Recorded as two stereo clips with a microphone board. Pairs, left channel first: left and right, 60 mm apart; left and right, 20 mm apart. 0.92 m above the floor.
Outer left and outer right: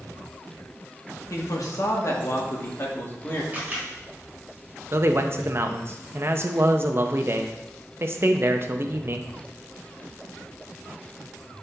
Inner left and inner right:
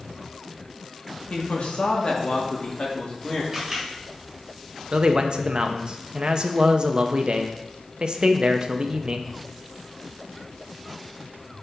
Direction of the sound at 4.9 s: 45° right (ahead or behind).